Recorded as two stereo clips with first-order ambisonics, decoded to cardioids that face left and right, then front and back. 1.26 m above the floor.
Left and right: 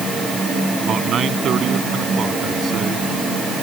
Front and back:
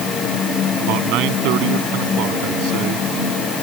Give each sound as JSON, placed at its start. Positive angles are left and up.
{"t": 0.8, "sound": "a man speaking", "azimuth_deg": -150}